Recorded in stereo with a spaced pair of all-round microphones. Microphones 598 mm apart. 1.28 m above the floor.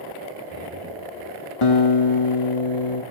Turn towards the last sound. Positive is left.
turn(degrees=55)  # may be behind; listen again after turning